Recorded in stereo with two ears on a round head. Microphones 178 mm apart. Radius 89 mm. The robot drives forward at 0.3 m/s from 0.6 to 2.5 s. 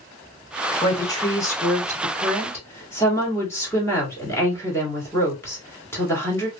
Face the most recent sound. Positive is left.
turn(degrees=15)  # may be behind; listen again after turning